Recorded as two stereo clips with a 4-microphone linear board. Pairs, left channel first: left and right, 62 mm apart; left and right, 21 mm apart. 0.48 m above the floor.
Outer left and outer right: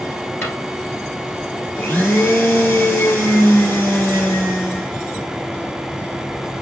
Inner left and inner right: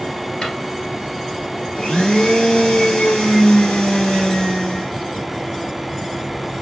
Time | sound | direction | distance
0.4 | a drawer | 40° left (ahead or behind) | 1.9 m
1.8 | a blender | 40° left (ahead or behind) | 3.5 m